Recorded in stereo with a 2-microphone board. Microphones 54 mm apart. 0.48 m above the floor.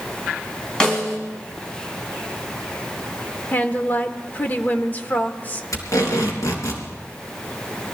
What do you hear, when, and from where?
0.8 s a snare drum: 10° left (ahead or behind), 4.5 m
3.5 s a woman speaking: 35° left (ahead or behind), 1.1 m
5.7 s tape being pulled: 80° left, 4 m